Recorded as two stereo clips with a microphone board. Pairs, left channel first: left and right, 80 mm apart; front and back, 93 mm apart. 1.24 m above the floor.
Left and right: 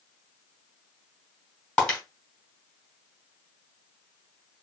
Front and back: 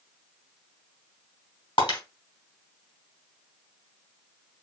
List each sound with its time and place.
1.8 s breaking glass: 10° left, 2.5 m